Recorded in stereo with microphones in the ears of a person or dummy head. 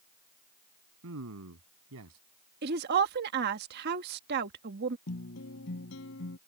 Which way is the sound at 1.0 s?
80° right.